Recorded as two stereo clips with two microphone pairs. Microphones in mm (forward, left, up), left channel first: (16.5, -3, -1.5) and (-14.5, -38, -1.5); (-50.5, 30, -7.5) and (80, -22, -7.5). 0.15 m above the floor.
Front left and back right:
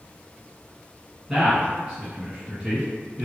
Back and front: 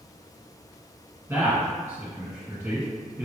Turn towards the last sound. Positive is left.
turn(degrees=-75)